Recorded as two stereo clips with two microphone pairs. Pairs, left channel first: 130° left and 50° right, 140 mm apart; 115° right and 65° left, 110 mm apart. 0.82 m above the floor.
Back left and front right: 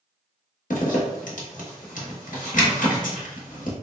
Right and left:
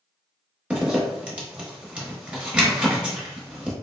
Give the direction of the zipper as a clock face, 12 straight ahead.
7 o'clock.